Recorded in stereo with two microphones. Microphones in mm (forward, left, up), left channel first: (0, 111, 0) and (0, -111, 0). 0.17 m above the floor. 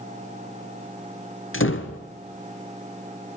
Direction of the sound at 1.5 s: 65° left (ahead or behind).